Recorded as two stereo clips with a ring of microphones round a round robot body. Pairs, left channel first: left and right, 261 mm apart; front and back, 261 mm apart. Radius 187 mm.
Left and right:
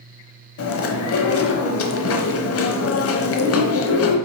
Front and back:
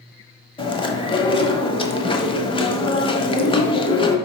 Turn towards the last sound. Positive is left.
turn(degrees=70)